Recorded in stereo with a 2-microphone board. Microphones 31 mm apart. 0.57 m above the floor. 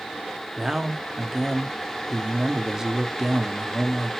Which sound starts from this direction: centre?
A man speaking, at 0.6 s.